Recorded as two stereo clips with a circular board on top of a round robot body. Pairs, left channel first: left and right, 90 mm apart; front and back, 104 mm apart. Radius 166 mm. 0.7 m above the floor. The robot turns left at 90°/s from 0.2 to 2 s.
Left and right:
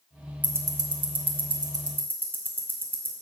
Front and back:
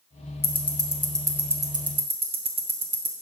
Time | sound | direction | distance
0.4 | ticking | 20° right | 0.9 m